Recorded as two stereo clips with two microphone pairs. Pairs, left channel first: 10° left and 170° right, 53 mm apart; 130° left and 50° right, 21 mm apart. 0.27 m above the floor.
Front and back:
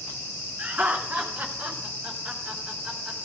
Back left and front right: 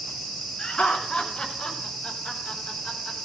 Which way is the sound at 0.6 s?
135° left.